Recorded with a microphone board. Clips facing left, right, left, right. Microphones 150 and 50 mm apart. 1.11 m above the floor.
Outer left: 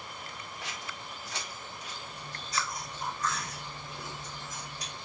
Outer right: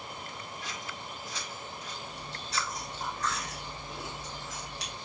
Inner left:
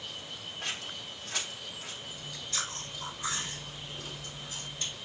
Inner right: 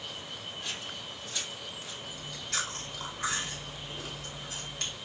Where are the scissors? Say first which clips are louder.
Outer right 1 dB, inner left 3 dB; 75° left (ahead or behind), 1.2 m.